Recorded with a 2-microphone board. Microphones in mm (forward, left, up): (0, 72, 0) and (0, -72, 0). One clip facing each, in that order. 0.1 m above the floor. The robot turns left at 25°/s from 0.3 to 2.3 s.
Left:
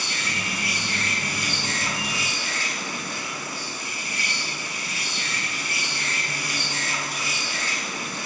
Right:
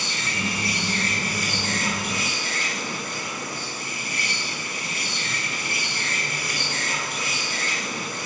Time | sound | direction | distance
0.0 | an insect | 30° right | 4 m